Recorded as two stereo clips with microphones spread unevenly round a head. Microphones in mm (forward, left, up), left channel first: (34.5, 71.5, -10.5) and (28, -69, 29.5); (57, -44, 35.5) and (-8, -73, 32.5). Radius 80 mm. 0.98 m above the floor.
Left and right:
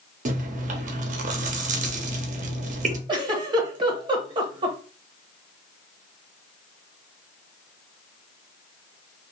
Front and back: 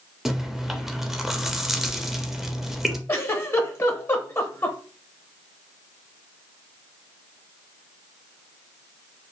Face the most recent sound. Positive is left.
turn(degrees=-25)